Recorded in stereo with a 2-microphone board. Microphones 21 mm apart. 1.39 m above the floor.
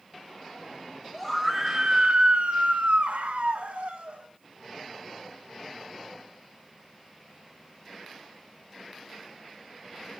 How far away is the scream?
About 1.3 m.